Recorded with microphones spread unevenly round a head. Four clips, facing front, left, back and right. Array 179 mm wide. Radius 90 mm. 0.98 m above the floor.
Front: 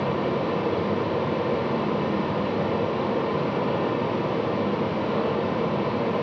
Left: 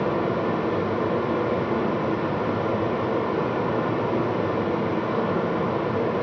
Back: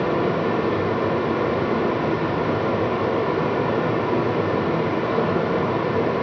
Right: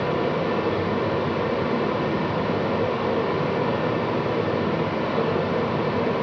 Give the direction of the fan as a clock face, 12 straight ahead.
6 o'clock.